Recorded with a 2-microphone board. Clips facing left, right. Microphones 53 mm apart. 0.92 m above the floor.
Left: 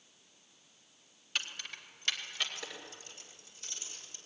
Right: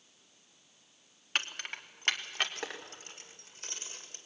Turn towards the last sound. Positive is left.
turn(degrees=-45)  # may be behind; listen again after turning